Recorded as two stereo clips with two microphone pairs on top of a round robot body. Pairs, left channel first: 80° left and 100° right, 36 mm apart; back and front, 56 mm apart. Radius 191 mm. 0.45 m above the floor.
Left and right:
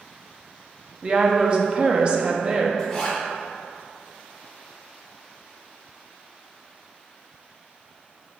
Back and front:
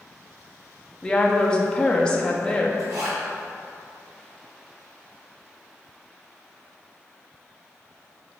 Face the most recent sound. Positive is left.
turn(degrees=5)